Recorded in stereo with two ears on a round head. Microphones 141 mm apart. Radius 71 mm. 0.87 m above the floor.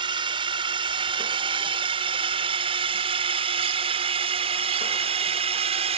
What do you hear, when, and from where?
0.0 s a drone: 30° right (ahead or behind); by 6.0 s 40° right (ahead or behind)